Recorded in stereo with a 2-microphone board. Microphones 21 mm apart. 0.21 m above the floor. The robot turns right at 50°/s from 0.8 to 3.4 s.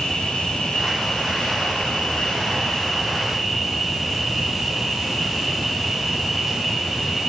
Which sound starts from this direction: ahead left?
An insect, at 0.0 s.